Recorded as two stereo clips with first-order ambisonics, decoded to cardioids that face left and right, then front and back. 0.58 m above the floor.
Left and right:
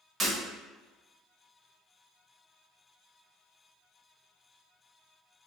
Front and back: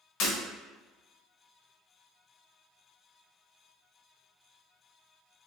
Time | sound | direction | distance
0.2 | breaking glass | 20° right | 1.4 m